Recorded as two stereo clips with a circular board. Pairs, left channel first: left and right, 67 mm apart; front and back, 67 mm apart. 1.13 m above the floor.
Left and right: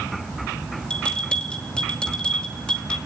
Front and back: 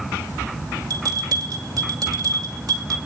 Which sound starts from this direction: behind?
A bell, at 0.9 s.